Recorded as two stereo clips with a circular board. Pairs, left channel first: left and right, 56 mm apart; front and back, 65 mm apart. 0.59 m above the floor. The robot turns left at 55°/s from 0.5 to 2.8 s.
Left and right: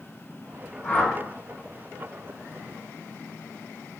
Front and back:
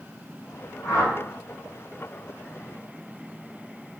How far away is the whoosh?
About 0.8 m.